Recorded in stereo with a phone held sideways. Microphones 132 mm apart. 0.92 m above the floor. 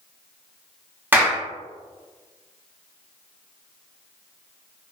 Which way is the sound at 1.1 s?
15° right (ahead or behind).